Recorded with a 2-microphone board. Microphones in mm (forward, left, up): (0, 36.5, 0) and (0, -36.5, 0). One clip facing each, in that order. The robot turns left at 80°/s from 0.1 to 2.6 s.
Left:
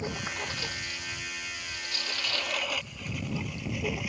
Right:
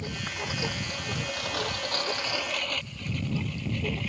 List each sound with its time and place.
0.0 s a lawn mower: 20° left (ahead or behind); by 4.1 s 10° left (ahead or behind)